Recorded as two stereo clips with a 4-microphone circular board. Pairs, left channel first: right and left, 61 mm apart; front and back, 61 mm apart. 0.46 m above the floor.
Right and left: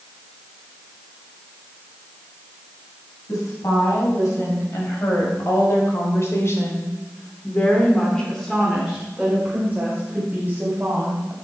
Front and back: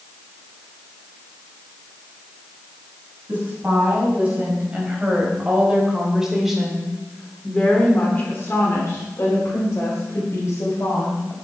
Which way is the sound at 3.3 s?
120° right.